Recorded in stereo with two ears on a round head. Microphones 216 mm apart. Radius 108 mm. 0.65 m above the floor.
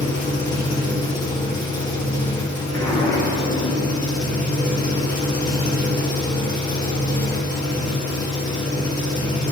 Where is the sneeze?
I don't hear a sneeze.